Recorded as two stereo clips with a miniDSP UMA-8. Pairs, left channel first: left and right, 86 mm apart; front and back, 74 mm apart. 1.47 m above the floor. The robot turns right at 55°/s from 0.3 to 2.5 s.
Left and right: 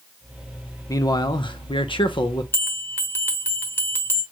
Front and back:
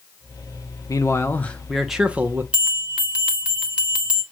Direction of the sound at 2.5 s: 120° left.